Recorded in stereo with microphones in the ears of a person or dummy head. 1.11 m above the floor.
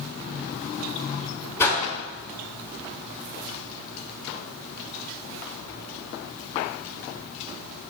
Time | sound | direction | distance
1.6 | a whoosh | 15° left (ahead or behind) | 3 m